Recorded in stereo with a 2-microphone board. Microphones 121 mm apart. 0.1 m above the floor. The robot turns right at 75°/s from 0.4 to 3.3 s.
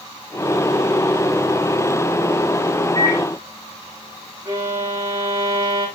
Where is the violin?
30° right (ahead or behind), 6.5 m.